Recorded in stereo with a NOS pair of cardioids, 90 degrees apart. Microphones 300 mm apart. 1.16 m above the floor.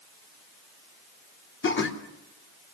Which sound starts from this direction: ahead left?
Laughter, at 1.6 s.